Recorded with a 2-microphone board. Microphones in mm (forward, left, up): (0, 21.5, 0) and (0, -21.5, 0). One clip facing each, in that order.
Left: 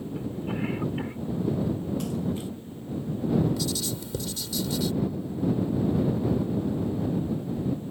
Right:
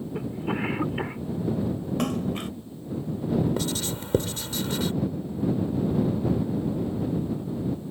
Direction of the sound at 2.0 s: 70° right (ahead or behind).